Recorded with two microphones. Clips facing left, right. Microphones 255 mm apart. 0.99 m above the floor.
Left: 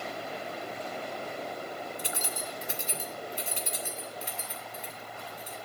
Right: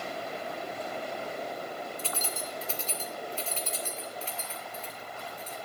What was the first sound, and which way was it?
Keys jangling, 15° left (ahead or behind).